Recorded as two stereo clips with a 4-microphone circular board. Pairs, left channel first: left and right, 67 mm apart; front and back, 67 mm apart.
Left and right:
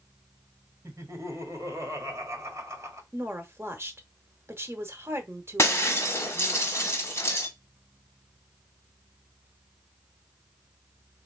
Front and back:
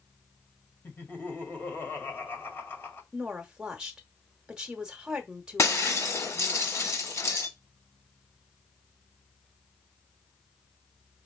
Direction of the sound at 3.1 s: 110° right.